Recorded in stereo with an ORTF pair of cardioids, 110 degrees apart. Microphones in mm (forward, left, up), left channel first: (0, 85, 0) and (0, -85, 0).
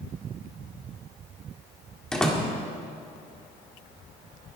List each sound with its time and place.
2.1 s a door slam: 5° left, 2 m